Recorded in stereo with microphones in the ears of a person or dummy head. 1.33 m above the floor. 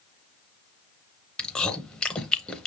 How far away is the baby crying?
I don't hear a baby crying.